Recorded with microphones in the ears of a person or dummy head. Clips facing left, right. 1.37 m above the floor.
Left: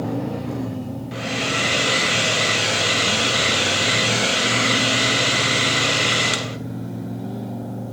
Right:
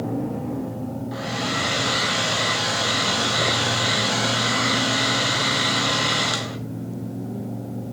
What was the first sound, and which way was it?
A hair dryer, 35° left (ahead or behind).